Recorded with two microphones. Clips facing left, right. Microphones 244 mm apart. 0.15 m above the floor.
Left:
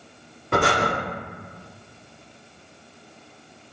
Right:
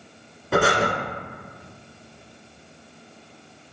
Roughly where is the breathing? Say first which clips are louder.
Right 1 dB; centre.